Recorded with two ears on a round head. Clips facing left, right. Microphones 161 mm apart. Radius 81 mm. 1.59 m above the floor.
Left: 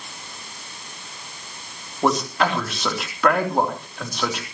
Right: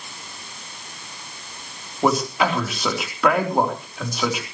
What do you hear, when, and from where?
2.0 s a man speaking: 5° right (ahead or behind), 3.5 m